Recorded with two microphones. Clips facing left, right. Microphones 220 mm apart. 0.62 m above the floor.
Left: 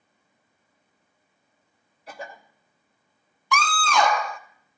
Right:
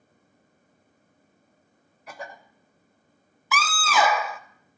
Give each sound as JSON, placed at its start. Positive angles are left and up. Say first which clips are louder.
{"t": 2.1, "sound": "a cough", "louder": "left 1 dB", "side_deg": 35, "distance_m": 2.5}
{"t": 3.5, "sound": "a scream", "louder": "left 1 dB", "side_deg": -5, "distance_m": 0.6}